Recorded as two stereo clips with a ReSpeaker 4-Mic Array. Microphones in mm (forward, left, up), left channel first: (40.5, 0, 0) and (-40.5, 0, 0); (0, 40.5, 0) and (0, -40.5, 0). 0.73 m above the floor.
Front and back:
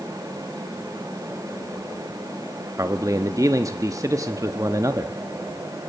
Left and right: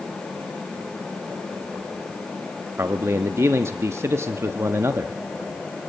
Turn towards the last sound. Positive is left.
turn(degrees=-145)